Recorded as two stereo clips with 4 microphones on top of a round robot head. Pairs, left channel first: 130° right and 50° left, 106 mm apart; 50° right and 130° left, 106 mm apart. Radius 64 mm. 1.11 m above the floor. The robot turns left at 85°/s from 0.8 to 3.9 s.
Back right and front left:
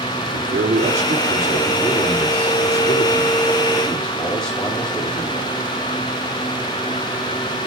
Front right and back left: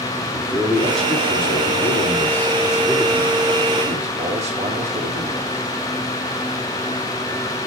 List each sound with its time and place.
0.3 s a man speaking: 50° left, 2.5 m; by 5.5 s 145° left, 2.5 m